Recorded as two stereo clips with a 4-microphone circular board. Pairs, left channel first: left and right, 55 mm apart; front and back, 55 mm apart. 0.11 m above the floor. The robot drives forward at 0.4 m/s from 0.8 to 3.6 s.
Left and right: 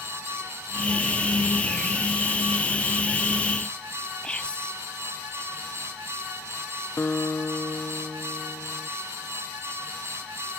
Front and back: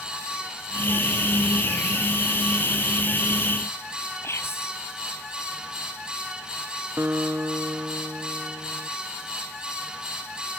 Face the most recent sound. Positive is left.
turn(degrees=135)